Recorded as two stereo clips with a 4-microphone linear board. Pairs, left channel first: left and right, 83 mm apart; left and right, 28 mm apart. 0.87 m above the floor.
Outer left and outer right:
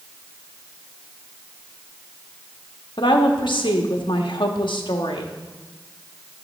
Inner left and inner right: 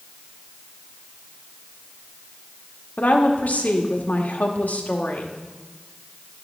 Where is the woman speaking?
75° left (ahead or behind), 1.2 m.